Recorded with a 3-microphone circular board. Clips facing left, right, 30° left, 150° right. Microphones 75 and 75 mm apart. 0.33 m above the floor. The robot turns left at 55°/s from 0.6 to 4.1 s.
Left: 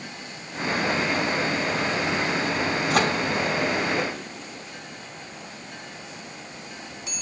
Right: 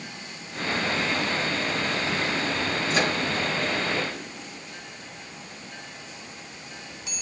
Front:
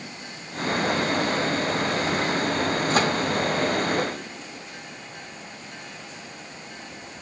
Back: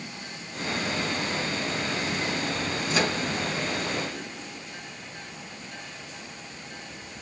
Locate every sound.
2.9 s a microwave: 70° left, 2.5 m; by 3.1 s 55° left, 2.5 m